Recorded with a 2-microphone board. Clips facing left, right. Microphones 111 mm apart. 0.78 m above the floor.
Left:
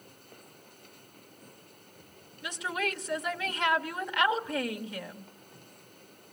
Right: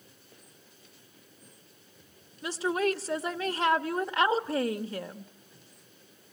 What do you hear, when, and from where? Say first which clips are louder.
2.4 s a woman speaking: right 6 dB; 30° right (ahead or behind), 1.1 m